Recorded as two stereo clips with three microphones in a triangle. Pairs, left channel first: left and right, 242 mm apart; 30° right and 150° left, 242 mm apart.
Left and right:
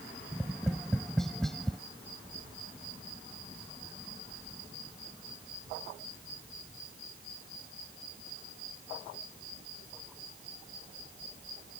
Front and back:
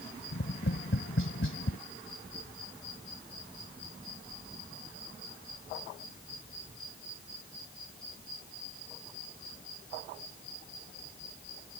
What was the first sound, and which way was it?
Tapping, straight ahead.